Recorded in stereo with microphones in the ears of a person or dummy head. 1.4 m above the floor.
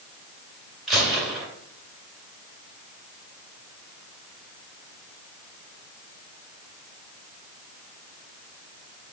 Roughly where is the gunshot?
Centre.